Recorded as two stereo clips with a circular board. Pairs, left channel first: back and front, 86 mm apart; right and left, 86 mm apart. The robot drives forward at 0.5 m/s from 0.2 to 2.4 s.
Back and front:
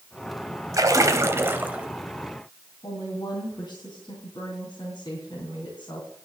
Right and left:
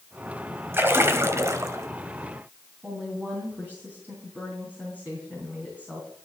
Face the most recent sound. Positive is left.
turn(degrees=160)